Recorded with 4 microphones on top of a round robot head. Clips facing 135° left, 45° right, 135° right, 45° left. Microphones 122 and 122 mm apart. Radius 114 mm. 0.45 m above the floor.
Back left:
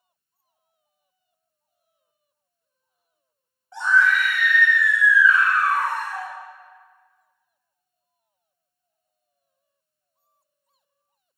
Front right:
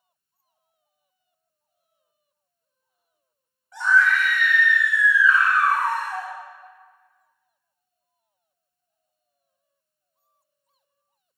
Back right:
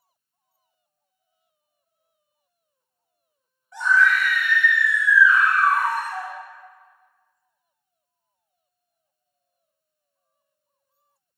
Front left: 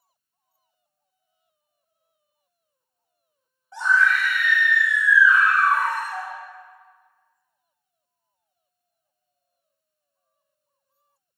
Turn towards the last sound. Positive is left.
turn(degrees=-55)